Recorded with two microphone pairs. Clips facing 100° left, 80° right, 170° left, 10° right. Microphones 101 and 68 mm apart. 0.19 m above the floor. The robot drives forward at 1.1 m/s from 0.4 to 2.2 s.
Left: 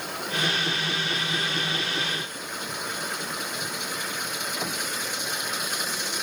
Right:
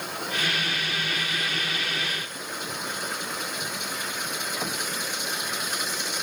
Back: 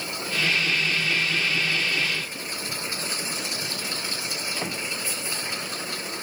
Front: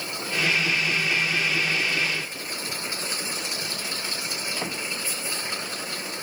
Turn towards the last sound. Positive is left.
No sound to turn to.